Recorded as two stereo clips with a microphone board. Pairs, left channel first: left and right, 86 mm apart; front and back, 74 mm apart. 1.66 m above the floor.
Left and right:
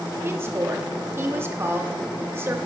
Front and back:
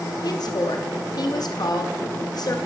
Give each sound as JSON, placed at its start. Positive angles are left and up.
{"t": 0.2, "sound": "a woman speaking", "azimuth_deg": -30, "distance_m": 0.8}